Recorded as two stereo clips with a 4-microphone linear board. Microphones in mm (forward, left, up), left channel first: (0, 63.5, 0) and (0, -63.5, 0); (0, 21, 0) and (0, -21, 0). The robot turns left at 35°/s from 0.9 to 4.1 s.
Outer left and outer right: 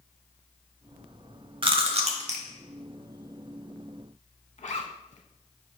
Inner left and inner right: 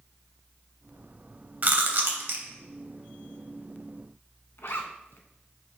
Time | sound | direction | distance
1.6 | chewing | 40° right (ahead or behind) | 0.6 m
4.6 | a zipper | 65° left (ahead or behind) | 0.5 m